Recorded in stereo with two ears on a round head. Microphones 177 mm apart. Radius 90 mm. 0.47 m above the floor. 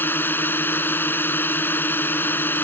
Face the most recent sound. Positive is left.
turn(degrees=10)  # may be behind; listen again after turning